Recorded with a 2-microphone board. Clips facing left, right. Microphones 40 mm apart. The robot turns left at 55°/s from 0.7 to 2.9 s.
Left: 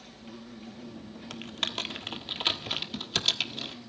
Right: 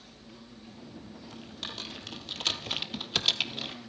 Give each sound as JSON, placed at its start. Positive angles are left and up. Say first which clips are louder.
{"t": 0.0, "sound": "an insect", "louder": "left 5 dB", "azimuth_deg": 75, "distance_m": 5.5}
{"t": 1.3, "sound": "typing on a keyboard", "louder": "left 8 dB", "side_deg": 80, "distance_m": 1.5}